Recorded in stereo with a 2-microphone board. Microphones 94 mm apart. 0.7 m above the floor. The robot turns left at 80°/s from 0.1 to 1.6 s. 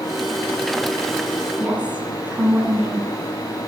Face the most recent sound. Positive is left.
turn(degrees=-15)  # may be behind; listen again after turning